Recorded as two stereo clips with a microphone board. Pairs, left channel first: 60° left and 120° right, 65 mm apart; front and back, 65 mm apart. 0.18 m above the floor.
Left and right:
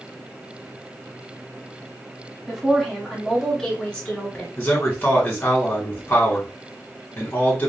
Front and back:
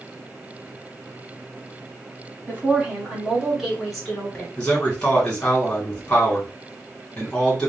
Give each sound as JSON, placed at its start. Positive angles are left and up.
{"t": 2.5, "sound": "a woman speaking", "azimuth_deg": 165, "distance_m": 1.3}
{"t": 4.6, "sound": "a man speaking", "azimuth_deg": 60, "distance_m": 1.6}